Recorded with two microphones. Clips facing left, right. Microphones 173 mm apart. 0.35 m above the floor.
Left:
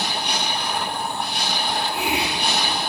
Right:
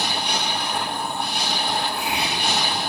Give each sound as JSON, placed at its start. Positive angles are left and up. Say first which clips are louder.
{"t": 1.7, "sound": "a hiss", "louder": "left 4 dB", "side_deg": 80, "distance_m": 9.5}